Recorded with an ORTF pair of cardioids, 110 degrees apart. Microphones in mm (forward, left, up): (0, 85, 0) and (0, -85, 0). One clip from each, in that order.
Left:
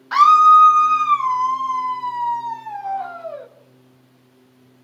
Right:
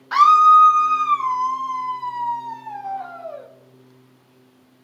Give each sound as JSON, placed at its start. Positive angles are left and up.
{"t": 0.1, "sound": "a scream", "azimuth_deg": 5, "distance_m": 0.6}